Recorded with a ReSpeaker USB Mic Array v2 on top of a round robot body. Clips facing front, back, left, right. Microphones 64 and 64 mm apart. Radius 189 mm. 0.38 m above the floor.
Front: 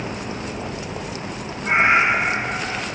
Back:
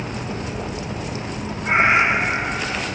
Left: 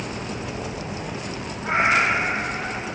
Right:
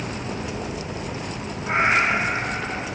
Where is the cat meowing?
100° left, 7.5 m; by 2.9 s 95° left, 8 m.